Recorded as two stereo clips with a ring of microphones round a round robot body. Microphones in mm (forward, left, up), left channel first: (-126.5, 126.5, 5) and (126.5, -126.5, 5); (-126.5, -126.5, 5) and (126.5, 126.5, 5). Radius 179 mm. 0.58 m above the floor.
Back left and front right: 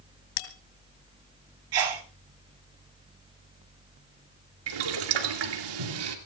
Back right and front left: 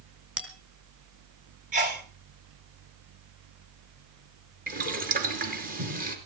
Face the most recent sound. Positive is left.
turn(degrees=-25)